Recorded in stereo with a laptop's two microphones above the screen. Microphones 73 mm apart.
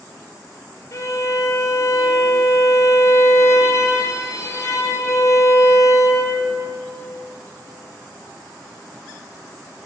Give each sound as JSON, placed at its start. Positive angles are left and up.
{"t": 0.9, "sound": "a violin", "side_deg": 40, "distance_m": 1.0}